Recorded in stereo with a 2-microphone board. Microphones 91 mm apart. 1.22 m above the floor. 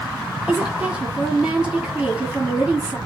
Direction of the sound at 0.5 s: 10° right (ahead or behind).